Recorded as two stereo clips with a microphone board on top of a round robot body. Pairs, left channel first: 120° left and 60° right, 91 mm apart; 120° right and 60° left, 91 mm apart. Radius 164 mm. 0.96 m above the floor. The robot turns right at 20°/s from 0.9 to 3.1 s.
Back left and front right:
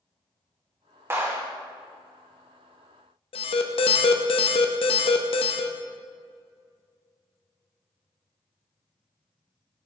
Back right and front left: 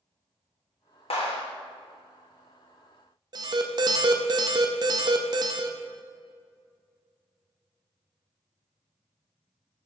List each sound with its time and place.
1.1 s a clap: 125° right, 2.5 m; by 1.4 s 120° right, 2.5 m
3.3 s an alarm: 105° left, 0.7 m